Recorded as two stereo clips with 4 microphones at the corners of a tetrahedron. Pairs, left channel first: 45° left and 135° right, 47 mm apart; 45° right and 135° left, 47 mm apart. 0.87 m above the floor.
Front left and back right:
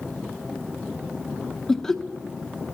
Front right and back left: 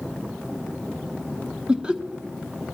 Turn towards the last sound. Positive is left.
turn(degrees=115)